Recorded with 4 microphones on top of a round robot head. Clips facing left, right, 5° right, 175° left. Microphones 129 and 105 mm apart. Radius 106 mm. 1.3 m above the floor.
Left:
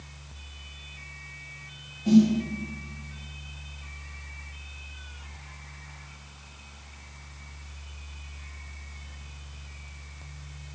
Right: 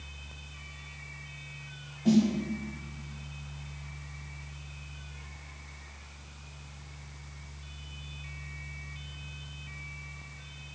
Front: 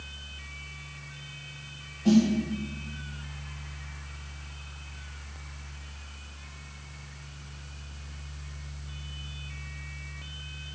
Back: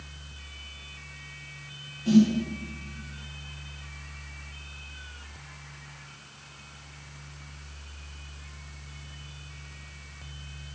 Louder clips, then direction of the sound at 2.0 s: Left 5 dB, back 2 dB; 50° right.